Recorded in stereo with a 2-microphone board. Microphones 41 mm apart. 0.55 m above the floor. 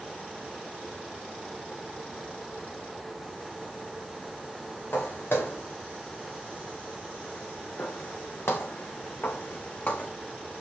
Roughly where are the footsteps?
Left.